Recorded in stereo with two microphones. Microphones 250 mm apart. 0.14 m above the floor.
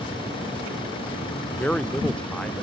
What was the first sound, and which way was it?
A man speaking, 5° left (ahead or behind).